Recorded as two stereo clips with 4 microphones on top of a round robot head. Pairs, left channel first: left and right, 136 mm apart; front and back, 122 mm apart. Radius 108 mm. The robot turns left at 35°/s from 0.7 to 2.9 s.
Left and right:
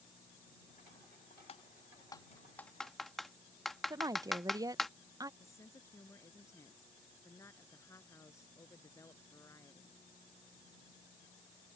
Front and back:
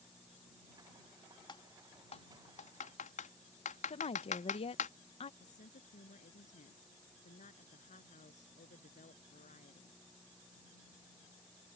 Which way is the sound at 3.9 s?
30° right.